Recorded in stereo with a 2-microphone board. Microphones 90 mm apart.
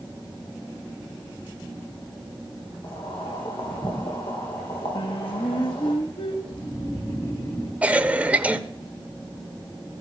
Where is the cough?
15° right (ahead or behind), 1.0 m.